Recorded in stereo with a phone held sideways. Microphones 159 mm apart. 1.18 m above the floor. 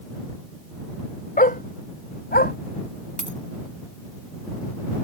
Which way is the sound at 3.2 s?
50° right (ahead or behind).